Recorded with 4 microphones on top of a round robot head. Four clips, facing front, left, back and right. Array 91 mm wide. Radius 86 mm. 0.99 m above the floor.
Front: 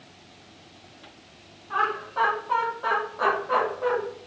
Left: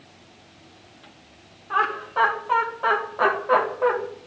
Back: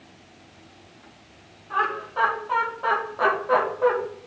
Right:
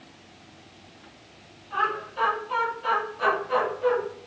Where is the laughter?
90° left, 3 m; by 4.0 s 120° left, 2.5 m.